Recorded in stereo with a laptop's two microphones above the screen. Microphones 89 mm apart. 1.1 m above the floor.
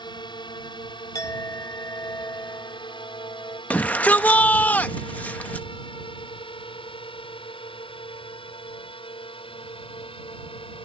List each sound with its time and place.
0.0 s a drone: 55° left (ahead or behind); by 10.9 s 75° left (ahead or behind)
1.1 s a clink: 40° left (ahead or behind)
3.7 s a shout: 20° left (ahead or behind)